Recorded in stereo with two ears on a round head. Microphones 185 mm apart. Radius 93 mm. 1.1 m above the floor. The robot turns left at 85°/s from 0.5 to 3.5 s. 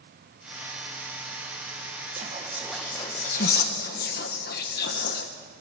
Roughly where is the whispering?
Right.